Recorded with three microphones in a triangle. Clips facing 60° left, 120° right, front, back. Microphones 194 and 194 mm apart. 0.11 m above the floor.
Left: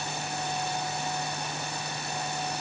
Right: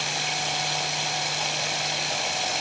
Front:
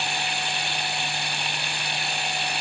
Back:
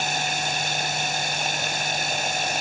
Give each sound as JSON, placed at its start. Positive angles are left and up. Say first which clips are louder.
{"t": 0.0, "sound": "running water", "louder": "right 1 dB, back 3 dB", "azimuth_deg": -135}